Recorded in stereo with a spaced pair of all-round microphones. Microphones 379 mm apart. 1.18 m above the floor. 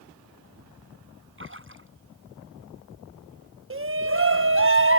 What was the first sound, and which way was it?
A splash, 35° right (ahead or behind).